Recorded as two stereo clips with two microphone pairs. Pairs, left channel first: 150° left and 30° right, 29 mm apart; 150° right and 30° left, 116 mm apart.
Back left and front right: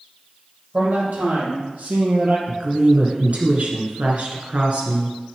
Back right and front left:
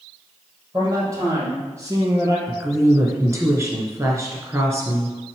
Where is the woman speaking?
25° right, 2.5 m.